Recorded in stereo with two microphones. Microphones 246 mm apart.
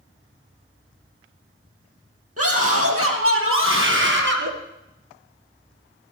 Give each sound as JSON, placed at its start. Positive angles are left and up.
{"t": 2.4, "sound": "a scream", "side_deg": -70, "distance_m": 4.0}